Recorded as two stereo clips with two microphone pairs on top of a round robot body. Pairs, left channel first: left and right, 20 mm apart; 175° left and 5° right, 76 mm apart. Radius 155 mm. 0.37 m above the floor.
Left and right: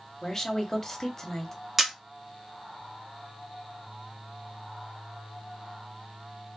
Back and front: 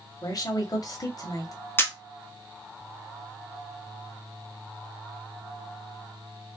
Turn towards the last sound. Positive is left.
turn(degrees=-160)